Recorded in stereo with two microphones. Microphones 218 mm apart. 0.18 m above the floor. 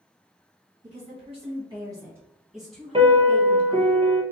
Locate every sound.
0.8 s a woman speaking: 35° right (ahead or behind), 1.9 m; by 3.9 s 15° left (ahead or behind), 2.5 m
2.9 s a piano: 25° right (ahead or behind), 0.8 m